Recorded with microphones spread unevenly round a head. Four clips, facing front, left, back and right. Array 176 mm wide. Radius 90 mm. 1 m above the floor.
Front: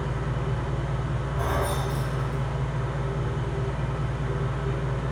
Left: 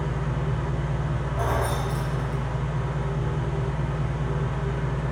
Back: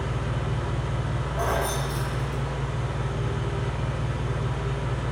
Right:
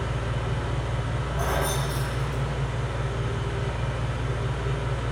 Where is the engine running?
170° right, 1.1 m.